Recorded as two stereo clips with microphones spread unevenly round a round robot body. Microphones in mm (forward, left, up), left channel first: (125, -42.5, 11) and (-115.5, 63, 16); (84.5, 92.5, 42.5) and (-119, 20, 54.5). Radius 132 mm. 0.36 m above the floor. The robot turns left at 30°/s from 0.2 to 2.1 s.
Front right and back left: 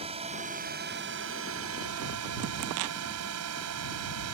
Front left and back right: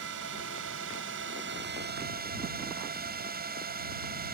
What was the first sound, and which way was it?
A drone, 140° right.